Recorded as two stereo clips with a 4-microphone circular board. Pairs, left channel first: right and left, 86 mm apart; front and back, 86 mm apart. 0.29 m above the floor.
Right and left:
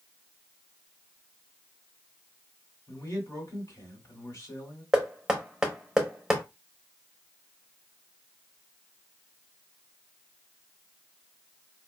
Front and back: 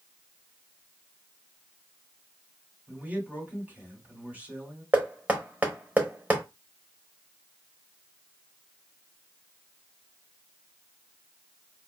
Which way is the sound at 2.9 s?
120° right.